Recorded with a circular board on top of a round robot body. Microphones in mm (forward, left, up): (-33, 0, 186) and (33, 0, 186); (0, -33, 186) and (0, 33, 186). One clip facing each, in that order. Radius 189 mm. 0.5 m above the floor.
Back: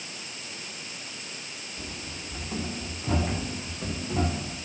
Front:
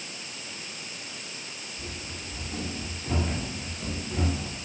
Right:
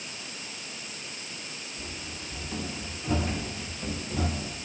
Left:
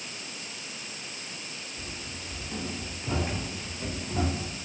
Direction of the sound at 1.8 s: 175° left.